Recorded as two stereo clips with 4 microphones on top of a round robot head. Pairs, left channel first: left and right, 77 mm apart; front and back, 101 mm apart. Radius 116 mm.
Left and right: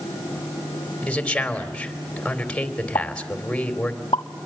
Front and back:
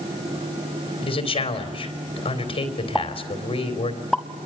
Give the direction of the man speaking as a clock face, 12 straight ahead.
12 o'clock.